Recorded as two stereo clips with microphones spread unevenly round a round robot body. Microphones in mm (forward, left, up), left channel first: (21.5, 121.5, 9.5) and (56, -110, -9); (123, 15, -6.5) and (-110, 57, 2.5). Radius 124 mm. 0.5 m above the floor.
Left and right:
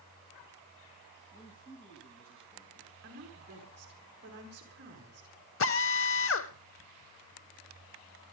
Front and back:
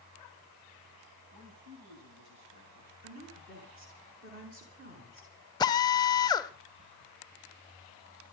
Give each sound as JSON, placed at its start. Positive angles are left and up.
{"t": 1.3, "sound": "a man speaking", "azimuth_deg": 160, "distance_m": 3.5}
{"t": 3.0, "sound": "a woman speaking", "azimuth_deg": -130, "distance_m": 6.0}
{"t": 5.6, "sound": "a drill", "azimuth_deg": 65, "distance_m": 0.9}